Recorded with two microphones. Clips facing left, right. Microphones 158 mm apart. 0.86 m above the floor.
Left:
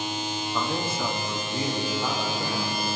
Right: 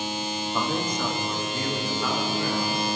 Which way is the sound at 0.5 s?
10° right (ahead or behind).